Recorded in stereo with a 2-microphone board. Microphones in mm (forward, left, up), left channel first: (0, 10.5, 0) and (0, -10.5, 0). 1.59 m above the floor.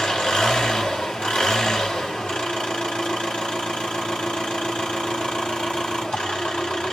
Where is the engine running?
55° left (ahead or behind), 4 m.